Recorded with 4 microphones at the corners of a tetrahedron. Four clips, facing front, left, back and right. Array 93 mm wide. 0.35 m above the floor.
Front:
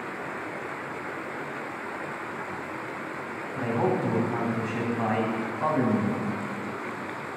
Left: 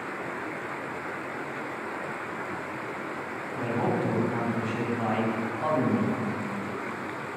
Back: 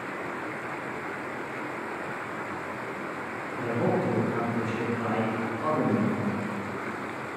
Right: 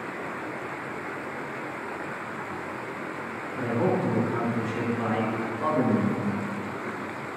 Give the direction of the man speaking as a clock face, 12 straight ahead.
12 o'clock.